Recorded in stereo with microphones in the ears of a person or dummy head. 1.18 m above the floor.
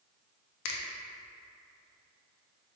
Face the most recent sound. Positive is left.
turn(degrees=60)  # may be behind; listen again after turning